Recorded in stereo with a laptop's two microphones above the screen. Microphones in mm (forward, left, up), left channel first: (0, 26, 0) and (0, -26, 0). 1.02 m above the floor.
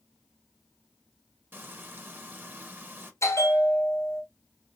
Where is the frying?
40° right (ahead or behind), 1.1 m.